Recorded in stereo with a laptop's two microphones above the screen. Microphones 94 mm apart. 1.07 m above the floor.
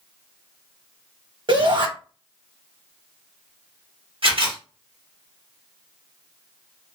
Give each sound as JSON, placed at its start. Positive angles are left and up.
{"t": 1.5, "sound": "a shout", "side_deg": -65, "distance_m": 1.0}
{"t": 4.2, "sound": "a camera shutter", "side_deg": -80, "distance_m": 1.5}